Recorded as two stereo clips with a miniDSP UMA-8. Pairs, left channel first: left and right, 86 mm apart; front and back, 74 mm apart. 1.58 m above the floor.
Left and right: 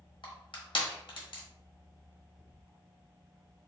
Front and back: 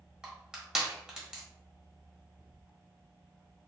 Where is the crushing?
100° left, 1.2 m.